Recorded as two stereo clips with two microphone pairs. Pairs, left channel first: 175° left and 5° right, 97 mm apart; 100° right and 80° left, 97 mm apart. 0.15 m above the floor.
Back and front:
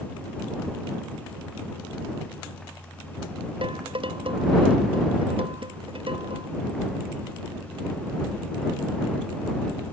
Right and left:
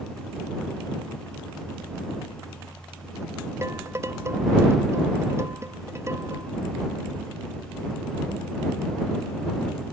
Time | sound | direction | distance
3.6 | dishes clattering | 20° left | ?